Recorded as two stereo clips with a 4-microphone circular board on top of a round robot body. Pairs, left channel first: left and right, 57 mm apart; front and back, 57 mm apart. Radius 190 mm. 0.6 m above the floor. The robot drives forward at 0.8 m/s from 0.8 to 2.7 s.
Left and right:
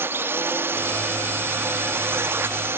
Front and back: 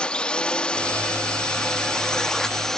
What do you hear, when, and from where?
0.0 s a drone: 65° right; by 2.8 s 80° right